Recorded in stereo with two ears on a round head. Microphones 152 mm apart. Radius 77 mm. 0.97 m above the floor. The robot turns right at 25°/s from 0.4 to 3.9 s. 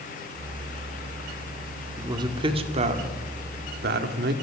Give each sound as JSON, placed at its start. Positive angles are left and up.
{"t": 2.0, "sound": "a man speaking", "side_deg": -20, "distance_m": 2.0}